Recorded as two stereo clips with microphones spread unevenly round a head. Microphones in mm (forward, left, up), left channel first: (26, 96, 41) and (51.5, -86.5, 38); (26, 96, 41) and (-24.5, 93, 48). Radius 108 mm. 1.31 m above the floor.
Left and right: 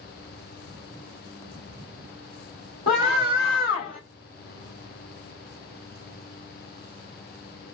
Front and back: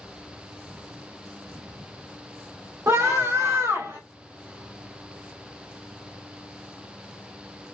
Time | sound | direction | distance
2.9 | a scream | 165° left | 3 m